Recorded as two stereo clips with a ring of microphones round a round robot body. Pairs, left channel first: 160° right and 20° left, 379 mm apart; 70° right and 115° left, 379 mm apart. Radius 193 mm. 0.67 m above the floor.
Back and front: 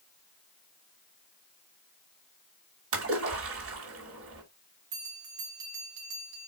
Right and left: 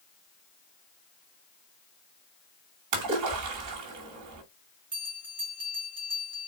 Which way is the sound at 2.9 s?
75° left.